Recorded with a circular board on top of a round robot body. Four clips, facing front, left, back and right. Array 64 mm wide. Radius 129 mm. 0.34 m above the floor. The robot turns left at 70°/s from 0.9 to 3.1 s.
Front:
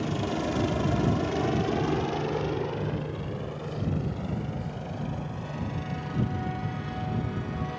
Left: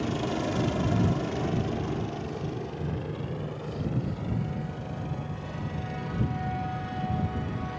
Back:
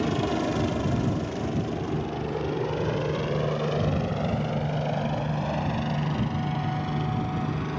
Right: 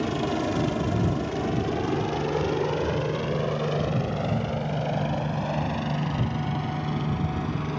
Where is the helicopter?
135° right; by 7.8 s 125° right.